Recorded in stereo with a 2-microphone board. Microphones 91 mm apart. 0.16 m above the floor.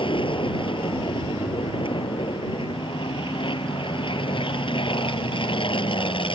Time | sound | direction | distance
0.0 | an aircraft | 65° left (ahead or behind) | ?